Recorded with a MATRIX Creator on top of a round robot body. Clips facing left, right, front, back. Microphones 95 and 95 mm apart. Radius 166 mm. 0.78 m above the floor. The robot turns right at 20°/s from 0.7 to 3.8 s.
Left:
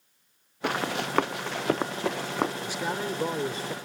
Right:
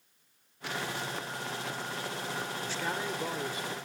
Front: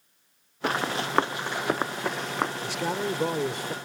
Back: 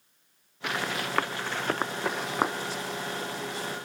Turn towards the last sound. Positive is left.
turn(degrees=35)